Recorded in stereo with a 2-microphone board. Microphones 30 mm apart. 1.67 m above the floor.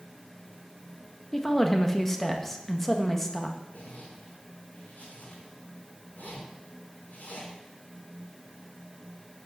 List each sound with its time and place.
1.3 s a woman speaking: 10° left (ahead or behind), 1.8 m
3.7 s a zipper: 80° left, 4.5 m